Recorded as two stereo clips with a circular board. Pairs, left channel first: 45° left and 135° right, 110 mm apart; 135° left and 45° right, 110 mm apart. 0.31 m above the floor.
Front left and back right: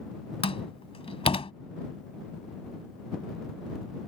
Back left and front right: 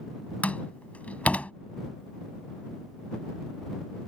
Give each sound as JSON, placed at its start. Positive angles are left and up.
{"t": 0.4, "sound": "a door slam", "azimuth_deg": 60}